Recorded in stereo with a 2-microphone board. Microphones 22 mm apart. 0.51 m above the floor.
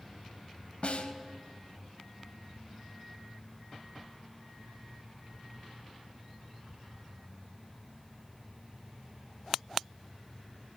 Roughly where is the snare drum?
Left.